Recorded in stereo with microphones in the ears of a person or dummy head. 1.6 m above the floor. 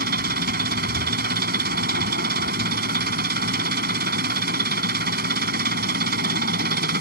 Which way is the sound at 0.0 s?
65° right (ahead or behind).